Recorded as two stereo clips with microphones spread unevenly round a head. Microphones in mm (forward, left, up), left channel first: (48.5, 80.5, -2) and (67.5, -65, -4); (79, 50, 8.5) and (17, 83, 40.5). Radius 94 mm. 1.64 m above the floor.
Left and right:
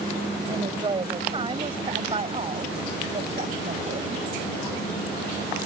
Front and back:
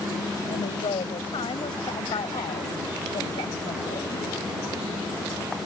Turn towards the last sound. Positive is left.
turn(degrees=-40)